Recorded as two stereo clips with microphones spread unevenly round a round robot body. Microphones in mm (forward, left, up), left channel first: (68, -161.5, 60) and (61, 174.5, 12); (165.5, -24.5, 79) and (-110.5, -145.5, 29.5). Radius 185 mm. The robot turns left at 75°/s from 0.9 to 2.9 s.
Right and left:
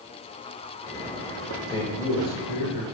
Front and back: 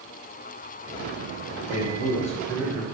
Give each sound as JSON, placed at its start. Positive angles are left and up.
{"t": 1.7, "sound": "a man speaking", "azimuth_deg": -5, "distance_m": 1.2}